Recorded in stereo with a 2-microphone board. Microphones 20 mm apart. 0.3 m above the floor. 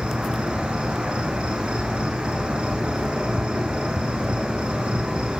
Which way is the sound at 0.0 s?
60° right (ahead or behind).